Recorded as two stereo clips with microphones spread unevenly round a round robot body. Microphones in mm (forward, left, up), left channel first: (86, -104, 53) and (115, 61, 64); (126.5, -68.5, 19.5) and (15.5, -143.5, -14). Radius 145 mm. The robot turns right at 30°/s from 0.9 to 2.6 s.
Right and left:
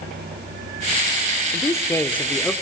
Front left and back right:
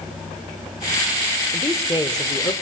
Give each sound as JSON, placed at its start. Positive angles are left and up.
{"t": 1.5, "sound": "a man speaking", "azimuth_deg": -50, "distance_m": 1.0}